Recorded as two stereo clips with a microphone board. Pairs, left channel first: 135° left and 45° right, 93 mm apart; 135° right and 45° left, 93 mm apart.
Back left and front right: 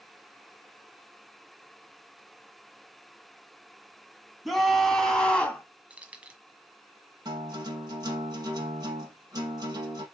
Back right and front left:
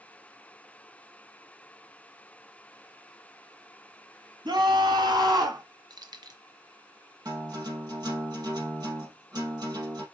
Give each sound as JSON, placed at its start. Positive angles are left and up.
{"t": 4.5, "sound": "a scream", "azimuth_deg": 45, "distance_m": 2.5}
{"t": 5.9, "sound": "keys jangling", "azimuth_deg": 25, "distance_m": 1.3}
{"t": 7.2, "sound": "a guitar", "azimuth_deg": 0, "distance_m": 4.0}